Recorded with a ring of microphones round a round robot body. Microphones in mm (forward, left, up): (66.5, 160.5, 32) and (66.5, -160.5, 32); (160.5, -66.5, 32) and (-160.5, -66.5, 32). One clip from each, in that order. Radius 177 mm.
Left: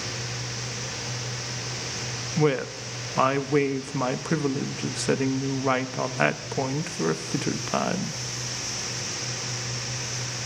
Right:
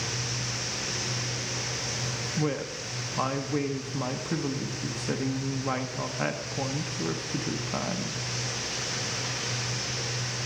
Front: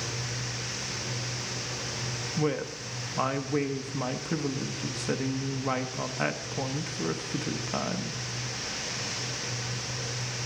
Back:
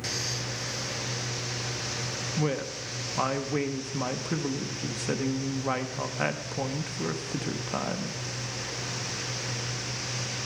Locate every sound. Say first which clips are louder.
2.4 s a woman speaking: left 10 dB, front 2 dB; 95° left, 0.8 m